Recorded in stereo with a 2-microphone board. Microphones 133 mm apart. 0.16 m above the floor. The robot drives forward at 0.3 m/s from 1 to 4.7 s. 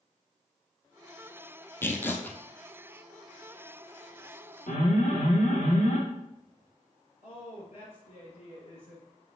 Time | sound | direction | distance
1.8 | tearing paper | 15° left (ahead or behind) | 0.8 m
4.7 | an alarm | 70° left (ahead or behind) | 3 m
7.2 | a woman speaking | 55° left (ahead or behind) | 3 m